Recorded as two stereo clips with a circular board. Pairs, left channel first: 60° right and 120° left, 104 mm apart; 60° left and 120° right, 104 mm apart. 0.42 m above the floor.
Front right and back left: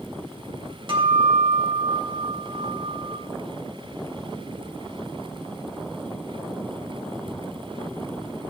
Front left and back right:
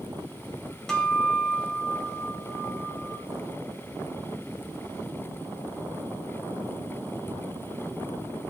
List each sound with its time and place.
0.9 s a guitar: 145° left, 2.5 m